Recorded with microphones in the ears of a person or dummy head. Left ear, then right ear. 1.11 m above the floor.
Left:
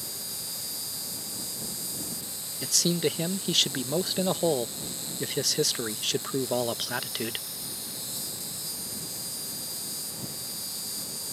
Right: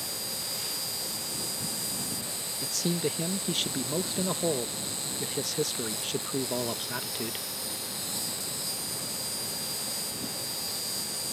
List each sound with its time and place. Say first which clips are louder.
0.0 s an insect: right 3 dB; 5° left (ahead or behind)
2.6 s a man speaking: left 5 dB; 30° left (ahead or behind)